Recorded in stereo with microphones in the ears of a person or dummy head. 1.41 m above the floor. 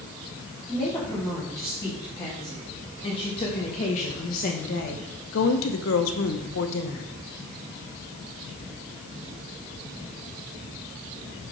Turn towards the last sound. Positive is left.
turn(degrees=60)  # may be behind; listen again after turning